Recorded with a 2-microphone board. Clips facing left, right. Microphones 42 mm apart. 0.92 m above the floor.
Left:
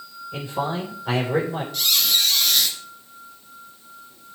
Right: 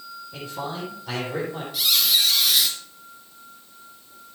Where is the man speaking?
40° left (ahead or behind), 4 m.